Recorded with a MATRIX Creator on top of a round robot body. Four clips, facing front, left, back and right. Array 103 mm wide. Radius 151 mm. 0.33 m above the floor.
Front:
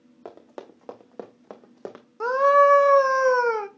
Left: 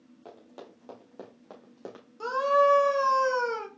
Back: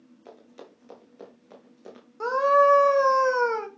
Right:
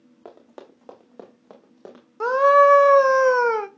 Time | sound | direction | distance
0.2 | running footsteps | 25° right | 1.7 m
2.2 | a scream | 75° right | 1.5 m